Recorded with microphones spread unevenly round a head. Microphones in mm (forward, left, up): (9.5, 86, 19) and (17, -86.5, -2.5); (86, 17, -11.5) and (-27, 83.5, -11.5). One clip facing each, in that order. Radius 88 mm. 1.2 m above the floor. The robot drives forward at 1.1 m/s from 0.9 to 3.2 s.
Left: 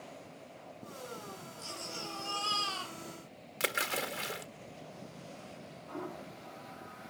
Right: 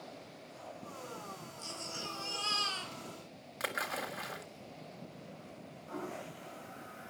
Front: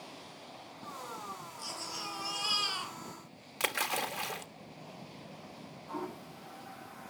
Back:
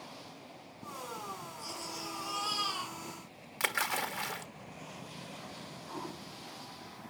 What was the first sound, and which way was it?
A baby crying, 15° right.